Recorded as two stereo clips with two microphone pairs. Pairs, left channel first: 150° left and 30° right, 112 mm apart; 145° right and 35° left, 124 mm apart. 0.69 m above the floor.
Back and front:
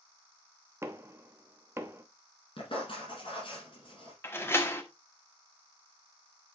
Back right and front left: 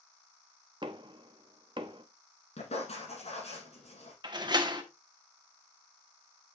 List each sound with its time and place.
0.8 s knocking: 25° left, 0.9 m
2.6 s writing: 170° right, 6 m
4.2 s a door slam: 80° left, 1.0 m